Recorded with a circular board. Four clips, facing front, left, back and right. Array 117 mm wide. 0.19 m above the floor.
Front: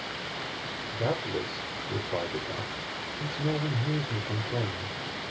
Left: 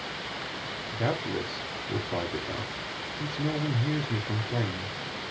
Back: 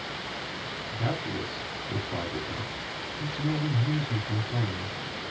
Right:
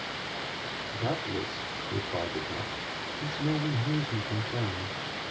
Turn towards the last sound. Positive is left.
turn(degrees=95)